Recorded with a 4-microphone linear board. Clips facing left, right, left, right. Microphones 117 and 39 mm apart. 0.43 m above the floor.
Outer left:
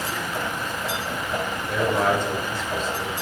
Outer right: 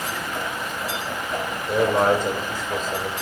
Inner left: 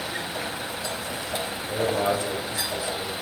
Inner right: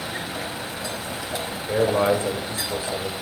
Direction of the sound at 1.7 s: 30° right (ahead or behind).